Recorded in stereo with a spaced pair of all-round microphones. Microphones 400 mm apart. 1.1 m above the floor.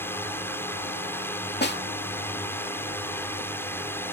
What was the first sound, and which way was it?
A drone, 5° left (ahead or behind).